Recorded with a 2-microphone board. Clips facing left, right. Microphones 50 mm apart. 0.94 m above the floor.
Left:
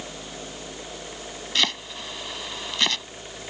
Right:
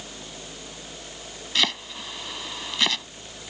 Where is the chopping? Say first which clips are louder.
Even; centre (ahead or behind).